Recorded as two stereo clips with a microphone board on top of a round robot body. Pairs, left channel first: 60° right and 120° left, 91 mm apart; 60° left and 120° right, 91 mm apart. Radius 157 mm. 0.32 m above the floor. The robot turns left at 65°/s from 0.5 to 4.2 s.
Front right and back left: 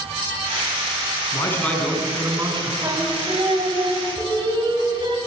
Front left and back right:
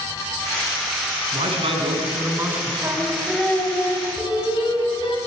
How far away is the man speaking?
About 4 m.